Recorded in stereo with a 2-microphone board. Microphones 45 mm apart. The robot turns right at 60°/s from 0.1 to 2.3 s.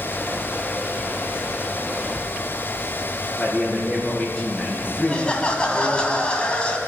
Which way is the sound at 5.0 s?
25° left (ahead or behind).